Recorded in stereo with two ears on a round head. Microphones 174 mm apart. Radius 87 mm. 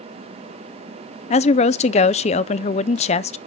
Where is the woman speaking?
35° left (ahead or behind), 0.5 m.